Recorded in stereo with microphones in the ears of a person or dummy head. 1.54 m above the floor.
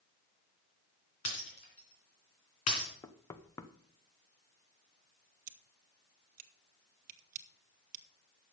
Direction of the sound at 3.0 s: 15° left (ahead or behind).